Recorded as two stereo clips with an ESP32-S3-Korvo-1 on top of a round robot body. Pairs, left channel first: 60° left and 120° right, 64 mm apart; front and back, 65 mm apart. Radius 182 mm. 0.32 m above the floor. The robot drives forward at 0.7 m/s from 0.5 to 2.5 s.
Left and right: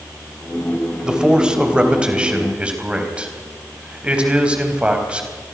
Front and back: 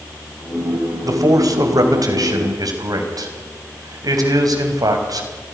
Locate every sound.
1.0 s a man speaking: 160° left, 3 m; by 5.3 s 165° left, 4 m